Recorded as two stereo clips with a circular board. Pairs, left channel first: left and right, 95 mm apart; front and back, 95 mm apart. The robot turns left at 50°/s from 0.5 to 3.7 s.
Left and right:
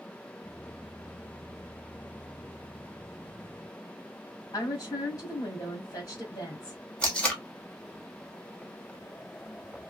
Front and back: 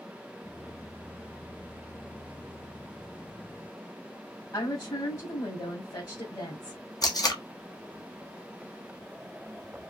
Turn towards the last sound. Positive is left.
turn(degrees=15)